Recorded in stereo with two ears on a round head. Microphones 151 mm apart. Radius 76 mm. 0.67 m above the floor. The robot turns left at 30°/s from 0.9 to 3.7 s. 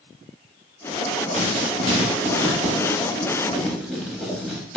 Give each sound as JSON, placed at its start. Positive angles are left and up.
{"t": 1.4, "sound": "writing", "side_deg": -45, "distance_m": 0.6}